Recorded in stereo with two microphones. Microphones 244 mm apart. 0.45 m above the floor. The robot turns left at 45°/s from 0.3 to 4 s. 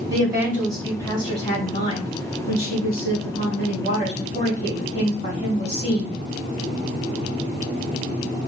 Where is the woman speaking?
160° right, 1.5 m; by 6.2 s 30° left, 1.5 m.